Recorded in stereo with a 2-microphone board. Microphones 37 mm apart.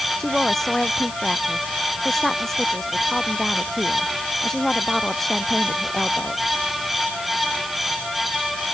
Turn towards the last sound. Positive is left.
turn(degrees=10)  # may be behind; listen again after turning